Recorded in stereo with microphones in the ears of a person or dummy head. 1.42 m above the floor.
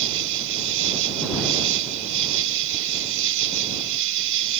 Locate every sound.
0.0 s an insect: 85° right